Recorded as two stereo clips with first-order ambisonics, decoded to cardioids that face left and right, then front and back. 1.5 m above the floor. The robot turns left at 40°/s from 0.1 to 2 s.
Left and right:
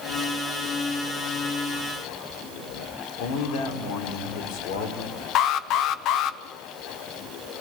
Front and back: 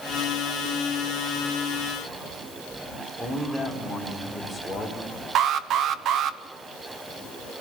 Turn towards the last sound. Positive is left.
turn(degrees=130)